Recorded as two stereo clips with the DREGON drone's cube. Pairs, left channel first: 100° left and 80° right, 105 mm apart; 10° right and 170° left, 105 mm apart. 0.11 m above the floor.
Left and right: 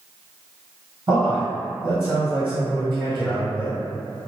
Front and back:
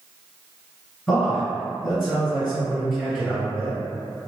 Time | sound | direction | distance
1.1 | a man speaking | 105° right | 2.0 m